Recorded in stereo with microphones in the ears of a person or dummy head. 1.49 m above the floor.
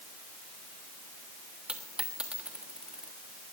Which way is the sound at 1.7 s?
10° right (ahead or behind).